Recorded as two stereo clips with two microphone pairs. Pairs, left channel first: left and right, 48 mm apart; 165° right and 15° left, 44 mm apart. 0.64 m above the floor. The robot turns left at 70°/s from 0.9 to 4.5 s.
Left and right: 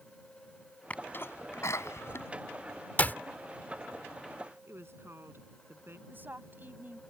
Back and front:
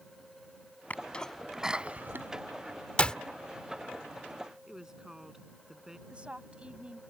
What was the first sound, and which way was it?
A sneeze, 150° left.